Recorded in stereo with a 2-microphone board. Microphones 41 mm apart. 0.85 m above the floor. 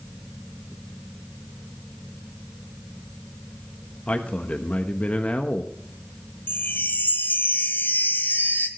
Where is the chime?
55° left (ahead or behind), 1.5 m.